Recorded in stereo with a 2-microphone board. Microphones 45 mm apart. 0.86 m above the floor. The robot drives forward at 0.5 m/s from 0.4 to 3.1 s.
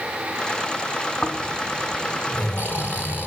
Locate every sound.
1.2 s snoring: 40° left (ahead or behind), 4.5 m; by 3.3 s 50° left (ahead or behind), 4 m